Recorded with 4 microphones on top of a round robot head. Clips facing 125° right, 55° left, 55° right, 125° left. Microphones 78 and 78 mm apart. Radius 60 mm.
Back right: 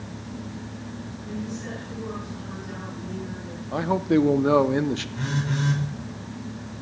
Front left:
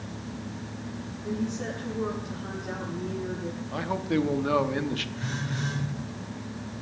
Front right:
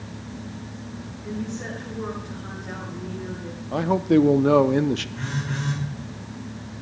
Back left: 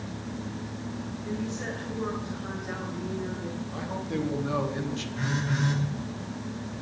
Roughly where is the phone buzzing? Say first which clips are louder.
Back right 5 dB, back left 1 dB; behind right.